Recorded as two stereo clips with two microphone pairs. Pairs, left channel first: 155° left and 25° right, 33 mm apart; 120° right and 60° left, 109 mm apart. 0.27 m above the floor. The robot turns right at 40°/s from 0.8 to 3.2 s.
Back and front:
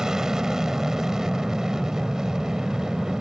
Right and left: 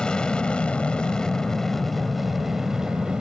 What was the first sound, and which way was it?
An aircraft, 50° right.